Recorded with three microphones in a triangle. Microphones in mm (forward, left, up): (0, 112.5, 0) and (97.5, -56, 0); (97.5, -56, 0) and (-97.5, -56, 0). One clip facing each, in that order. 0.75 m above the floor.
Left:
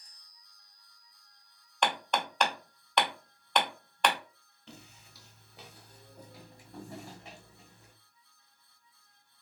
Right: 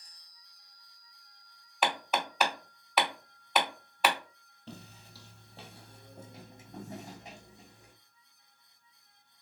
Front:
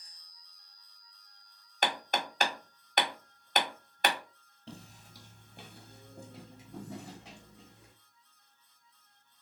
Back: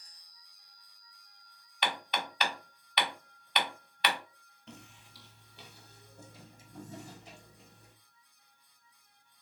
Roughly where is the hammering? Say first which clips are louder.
Even, front 3 dB; ahead left.